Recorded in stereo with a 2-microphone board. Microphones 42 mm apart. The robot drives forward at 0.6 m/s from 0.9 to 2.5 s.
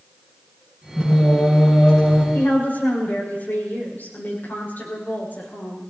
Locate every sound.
1.0 s singing: 20° left (ahead or behind), 7 m; by 2.2 s 25° left (ahead or behind), 6.5 m
2.3 s a woman speaking: 55° left (ahead or behind), 6 m